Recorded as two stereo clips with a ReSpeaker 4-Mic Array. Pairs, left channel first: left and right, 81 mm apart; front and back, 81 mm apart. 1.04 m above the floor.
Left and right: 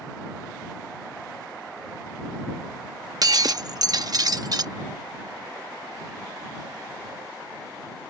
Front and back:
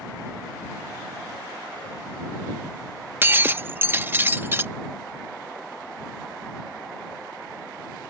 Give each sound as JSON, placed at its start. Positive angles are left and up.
{"t": 3.2, "sound": "breaking glass", "azimuth_deg": -120}